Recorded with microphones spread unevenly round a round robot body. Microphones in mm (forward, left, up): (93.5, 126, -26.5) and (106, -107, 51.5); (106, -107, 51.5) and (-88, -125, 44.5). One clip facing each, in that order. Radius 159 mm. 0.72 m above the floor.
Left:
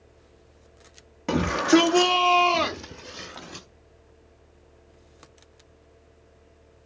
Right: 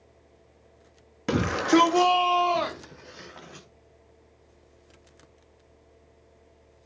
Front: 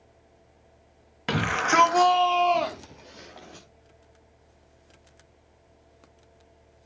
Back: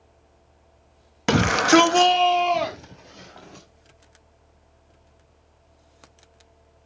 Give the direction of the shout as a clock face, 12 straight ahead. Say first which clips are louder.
Left 2 dB, back 10 dB; 6 o'clock.